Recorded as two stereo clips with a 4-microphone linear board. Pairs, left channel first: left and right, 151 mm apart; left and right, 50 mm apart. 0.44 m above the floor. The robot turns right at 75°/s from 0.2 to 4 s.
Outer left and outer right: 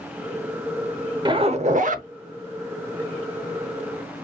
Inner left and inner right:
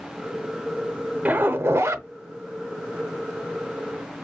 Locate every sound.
1.2 s a zipper: 145° right, 0.6 m; by 2.1 s 85° right, 0.6 m